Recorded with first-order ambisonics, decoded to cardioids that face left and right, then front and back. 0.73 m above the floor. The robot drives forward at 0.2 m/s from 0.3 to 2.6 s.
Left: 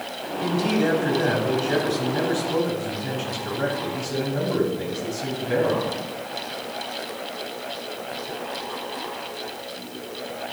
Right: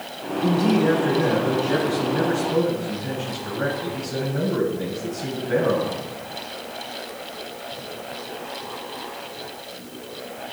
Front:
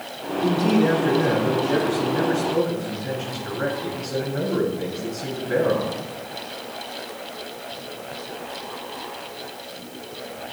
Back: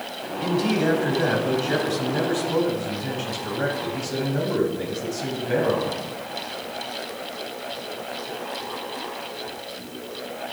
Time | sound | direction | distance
0.4 | a man speaking | 160° left | 3.5 m